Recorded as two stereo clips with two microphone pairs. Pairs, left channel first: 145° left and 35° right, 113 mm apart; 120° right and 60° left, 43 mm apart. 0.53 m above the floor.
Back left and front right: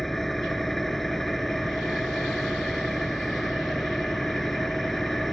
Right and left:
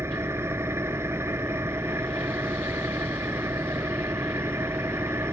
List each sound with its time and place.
0.0 s an engine running: 55° left